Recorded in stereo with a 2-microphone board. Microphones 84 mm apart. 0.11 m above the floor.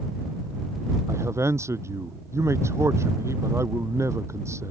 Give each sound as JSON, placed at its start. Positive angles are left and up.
{"t": 1.1, "sound": "a man speaking", "side_deg": -35}